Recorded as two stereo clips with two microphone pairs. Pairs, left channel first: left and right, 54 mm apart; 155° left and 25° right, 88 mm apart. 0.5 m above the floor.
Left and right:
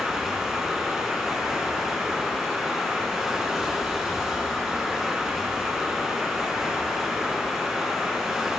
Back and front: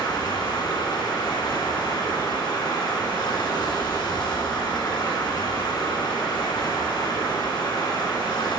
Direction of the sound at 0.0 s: 170° right.